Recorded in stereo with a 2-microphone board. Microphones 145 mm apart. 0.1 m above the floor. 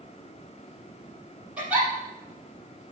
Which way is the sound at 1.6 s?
10° right (ahead or behind).